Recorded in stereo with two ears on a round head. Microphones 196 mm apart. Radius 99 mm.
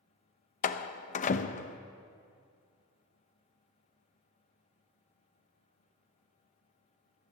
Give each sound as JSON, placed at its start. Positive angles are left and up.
{"t": 0.6, "sound": "a door slam", "side_deg": 35, "distance_m": 0.6}